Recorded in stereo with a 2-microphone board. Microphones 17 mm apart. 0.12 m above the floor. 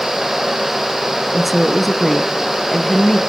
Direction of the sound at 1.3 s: 10° right (ahead or behind).